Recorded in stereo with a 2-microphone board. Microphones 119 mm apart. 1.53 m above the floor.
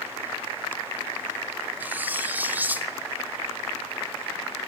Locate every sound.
1.8 s cutlery clinking: 15° right (ahead or behind), 0.9 m